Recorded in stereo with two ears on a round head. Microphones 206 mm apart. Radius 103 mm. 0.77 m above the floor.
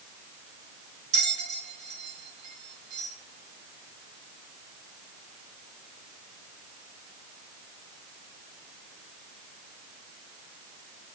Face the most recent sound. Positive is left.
turn(degrees=-50)  # may be behind; listen again after turning